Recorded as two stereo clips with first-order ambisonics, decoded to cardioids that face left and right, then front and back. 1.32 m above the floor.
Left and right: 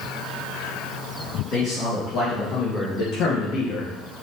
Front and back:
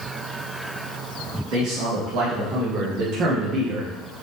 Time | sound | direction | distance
1.5 | a man speaking | 140° left | 2 m